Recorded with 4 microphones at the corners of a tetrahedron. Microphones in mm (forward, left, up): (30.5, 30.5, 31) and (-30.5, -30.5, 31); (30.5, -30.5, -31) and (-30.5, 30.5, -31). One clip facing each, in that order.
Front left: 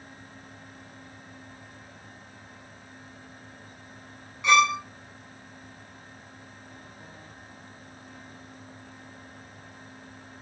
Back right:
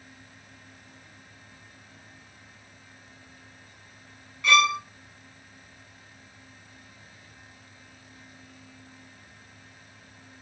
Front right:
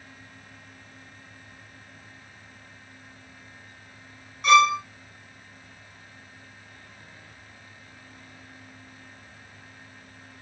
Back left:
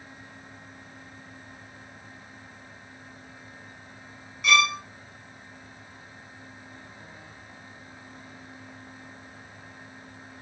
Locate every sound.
4.4 s a violin: 15° right, 0.8 m